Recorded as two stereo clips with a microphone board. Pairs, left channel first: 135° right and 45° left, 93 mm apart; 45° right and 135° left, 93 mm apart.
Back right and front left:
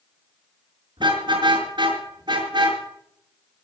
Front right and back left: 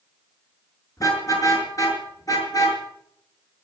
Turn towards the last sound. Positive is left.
turn(degrees=5)